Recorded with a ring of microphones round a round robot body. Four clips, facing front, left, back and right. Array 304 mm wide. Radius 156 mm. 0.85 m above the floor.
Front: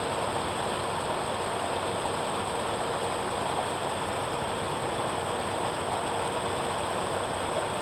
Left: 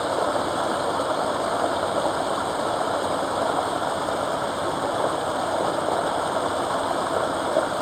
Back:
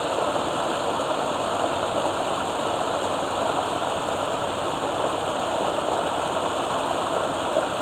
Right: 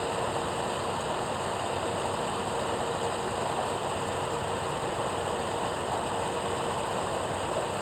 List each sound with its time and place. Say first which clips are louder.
0.0 s running water: left 7 dB, back 6 dB; 125° left